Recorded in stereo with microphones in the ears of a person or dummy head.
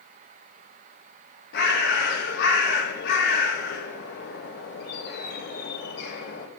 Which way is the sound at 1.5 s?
70° left (ahead or behind).